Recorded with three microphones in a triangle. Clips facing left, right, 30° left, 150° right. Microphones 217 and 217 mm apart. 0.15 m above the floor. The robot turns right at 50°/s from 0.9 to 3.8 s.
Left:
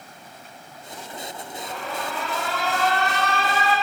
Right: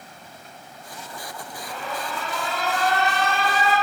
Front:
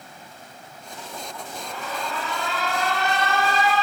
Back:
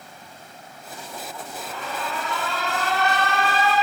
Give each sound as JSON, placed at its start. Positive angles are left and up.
{"t": 1.6, "sound": "an alarm", "azimuth_deg": 50, "distance_m": 4.0}